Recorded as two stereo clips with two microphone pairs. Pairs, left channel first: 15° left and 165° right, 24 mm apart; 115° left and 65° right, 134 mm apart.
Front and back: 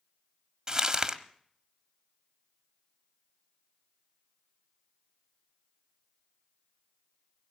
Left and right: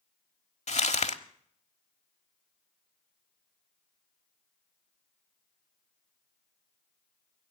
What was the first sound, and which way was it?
Crumpling, 140° left.